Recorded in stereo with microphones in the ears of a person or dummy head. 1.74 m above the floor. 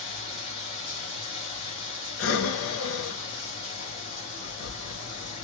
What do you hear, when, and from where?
0.0 s running water: 25° left (ahead or behind), 1.9 m
2.2 s breathing: 80° left, 0.7 m